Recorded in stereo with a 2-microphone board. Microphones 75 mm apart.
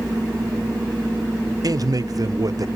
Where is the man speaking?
50° right (ahead or behind), 0.9 m.